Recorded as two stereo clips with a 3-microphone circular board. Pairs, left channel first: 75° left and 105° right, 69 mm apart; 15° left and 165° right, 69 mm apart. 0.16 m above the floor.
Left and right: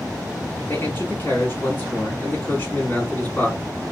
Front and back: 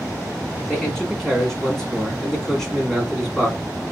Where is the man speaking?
95° left, 1.8 m.